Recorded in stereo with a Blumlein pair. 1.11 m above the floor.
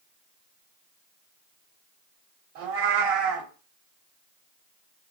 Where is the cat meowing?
50° right, 1.6 m.